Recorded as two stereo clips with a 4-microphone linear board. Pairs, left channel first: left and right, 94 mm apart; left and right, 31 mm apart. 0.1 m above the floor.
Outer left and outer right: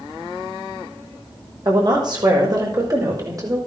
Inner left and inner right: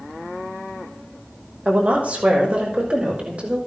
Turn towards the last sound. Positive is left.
turn(degrees=-40)  # may be behind; listen again after turning